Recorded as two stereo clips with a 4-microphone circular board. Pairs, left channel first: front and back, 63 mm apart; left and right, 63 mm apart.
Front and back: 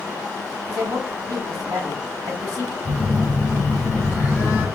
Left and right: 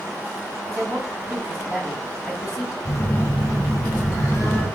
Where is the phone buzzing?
125° left, 2 m.